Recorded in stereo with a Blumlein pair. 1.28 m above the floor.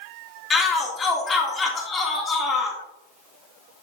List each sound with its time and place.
0.5 s a shout: 20° left, 2.5 m